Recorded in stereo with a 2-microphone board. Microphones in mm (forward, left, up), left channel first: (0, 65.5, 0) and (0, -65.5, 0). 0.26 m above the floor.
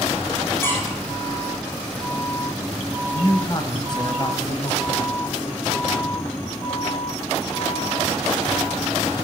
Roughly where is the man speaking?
Left.